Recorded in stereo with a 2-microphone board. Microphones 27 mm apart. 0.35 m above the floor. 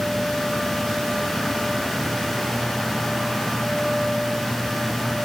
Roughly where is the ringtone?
No ringtone in this recording.